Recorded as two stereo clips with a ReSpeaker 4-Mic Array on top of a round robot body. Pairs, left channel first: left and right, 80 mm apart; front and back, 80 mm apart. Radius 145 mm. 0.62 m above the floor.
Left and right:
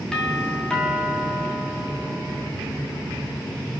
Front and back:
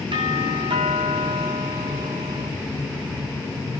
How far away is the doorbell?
About 8.5 m.